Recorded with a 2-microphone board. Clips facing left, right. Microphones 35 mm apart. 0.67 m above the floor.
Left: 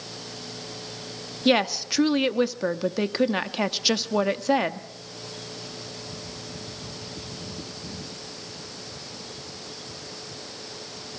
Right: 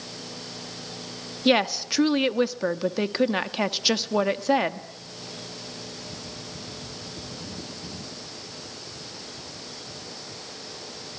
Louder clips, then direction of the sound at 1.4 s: Even; 5° right (ahead or behind).